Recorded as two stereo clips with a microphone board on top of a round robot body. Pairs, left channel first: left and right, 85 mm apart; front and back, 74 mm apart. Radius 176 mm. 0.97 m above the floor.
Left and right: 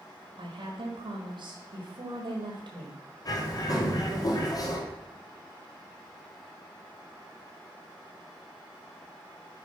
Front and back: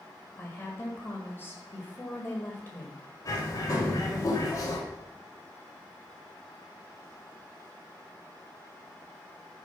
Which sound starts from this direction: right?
A woman speaking, at 0.4 s.